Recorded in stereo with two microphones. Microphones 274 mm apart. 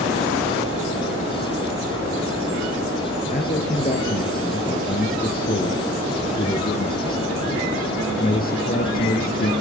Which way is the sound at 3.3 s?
35° left (ahead or behind).